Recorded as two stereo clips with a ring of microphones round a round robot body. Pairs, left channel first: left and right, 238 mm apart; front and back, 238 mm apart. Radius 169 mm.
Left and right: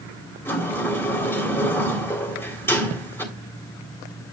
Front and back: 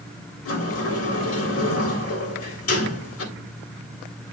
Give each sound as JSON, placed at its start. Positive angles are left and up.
{"t": 0.5, "sound": "a sliding door", "azimuth_deg": 10, "distance_m": 3.0}